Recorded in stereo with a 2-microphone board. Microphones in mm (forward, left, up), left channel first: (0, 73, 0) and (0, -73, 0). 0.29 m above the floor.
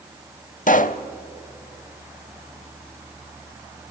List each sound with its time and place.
0.7 s a pop: 55° left (ahead or behind), 0.6 m